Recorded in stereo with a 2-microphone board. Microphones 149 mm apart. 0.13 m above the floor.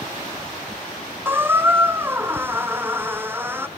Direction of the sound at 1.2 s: 15° right (ahead or behind).